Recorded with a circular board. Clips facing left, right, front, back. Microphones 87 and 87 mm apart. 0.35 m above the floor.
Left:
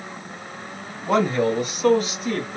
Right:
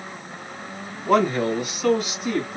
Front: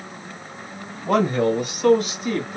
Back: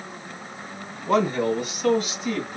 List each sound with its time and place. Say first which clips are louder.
1.1 s a man speaking: even, front 2 dB; 30° left, 3 m; by 2.6 s 45° left, 3.5 m